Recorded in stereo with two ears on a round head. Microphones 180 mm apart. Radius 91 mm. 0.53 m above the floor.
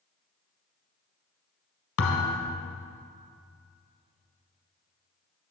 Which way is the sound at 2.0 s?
85° left.